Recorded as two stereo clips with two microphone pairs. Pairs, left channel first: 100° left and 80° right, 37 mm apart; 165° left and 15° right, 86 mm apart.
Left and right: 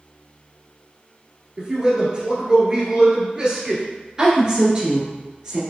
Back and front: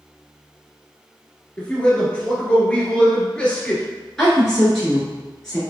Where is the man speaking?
130° right, 1.5 m.